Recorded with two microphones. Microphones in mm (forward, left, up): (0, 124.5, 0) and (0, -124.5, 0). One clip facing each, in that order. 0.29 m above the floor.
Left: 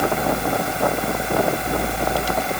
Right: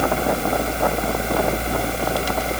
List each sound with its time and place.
Only background noise.